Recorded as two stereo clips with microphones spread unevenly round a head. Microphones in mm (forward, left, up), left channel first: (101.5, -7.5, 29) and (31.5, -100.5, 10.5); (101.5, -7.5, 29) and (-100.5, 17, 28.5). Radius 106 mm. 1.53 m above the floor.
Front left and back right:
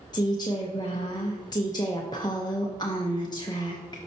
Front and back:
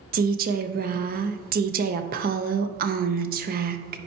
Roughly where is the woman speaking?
Behind left.